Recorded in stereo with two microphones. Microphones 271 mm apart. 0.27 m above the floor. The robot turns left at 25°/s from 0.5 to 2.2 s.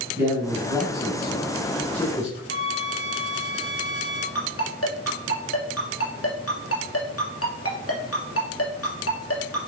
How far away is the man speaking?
About 2 m.